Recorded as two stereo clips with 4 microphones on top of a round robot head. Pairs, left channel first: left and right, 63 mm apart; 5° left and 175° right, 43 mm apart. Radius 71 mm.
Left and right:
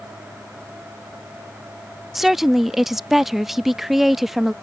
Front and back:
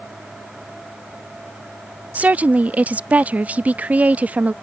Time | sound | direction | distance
2.1 | a woman speaking | 170° right | ?